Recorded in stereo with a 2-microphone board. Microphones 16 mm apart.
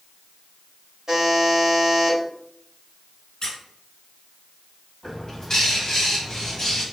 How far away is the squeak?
About 1.3 m.